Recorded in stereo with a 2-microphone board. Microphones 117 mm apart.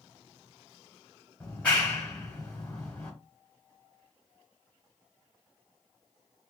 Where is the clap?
10° left (ahead or behind), 1.7 m.